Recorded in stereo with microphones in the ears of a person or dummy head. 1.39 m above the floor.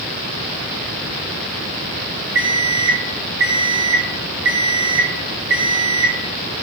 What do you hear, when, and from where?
2.4 s an alarm clock: 20° right (ahead or behind), 0.8 m